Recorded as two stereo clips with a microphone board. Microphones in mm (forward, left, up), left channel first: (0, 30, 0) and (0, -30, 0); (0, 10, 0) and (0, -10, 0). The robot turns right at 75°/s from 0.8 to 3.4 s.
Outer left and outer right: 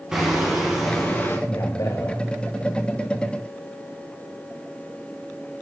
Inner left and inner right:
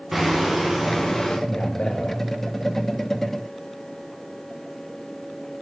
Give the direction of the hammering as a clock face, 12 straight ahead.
12 o'clock.